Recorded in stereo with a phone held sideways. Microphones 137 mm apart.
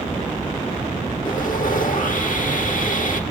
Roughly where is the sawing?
Left.